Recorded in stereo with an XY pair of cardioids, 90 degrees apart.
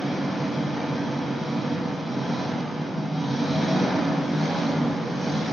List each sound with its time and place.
0.0 s an engine running: 15° left, 0.8 m